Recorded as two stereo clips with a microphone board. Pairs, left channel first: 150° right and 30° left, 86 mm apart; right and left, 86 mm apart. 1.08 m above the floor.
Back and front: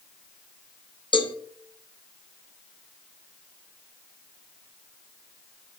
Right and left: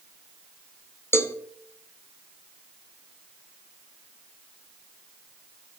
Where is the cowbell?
150° right, 0.7 m.